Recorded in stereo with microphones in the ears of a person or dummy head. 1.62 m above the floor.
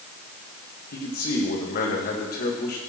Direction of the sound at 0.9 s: 50° left (ahead or behind).